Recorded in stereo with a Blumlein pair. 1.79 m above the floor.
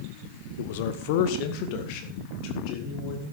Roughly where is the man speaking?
Ahead left.